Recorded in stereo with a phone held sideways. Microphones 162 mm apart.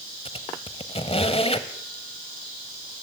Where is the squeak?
35° left (ahead or behind), 1.2 m.